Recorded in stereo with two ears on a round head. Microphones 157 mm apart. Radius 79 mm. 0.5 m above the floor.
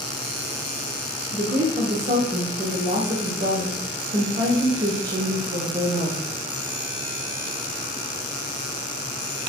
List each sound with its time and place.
1.3 s a woman speaking: 50° right (ahead or behind), 1.0 m